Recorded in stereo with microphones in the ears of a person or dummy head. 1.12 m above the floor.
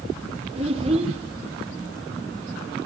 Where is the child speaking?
40° right (ahead or behind), 1.6 m.